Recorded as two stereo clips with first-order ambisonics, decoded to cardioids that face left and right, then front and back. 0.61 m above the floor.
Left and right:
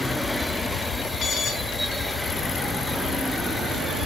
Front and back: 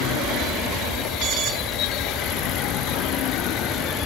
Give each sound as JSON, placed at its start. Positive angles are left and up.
{"t": 1.2, "sound": "an alarm", "azimuth_deg": 135, "distance_m": 5.0}